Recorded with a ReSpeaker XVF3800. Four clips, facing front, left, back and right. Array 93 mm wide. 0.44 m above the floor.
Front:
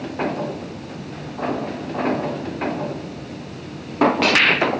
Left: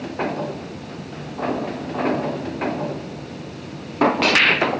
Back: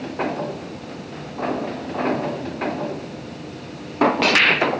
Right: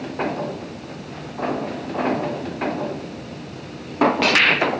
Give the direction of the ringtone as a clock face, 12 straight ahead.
No ringtone in this recording.